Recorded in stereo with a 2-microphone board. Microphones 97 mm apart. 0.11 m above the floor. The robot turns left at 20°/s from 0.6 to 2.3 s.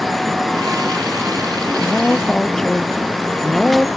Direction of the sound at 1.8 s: 10° left (ahead or behind).